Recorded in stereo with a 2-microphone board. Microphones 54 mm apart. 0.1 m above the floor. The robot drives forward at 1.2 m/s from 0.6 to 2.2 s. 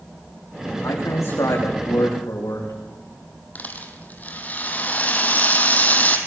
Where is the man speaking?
80° left, 8 m.